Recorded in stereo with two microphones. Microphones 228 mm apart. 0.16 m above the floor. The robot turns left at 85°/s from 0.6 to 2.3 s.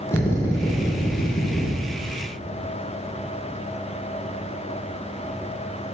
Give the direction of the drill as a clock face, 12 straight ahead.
6 o'clock.